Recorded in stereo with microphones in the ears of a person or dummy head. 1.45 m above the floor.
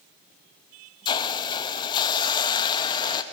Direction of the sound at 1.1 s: 25° left (ahead or behind).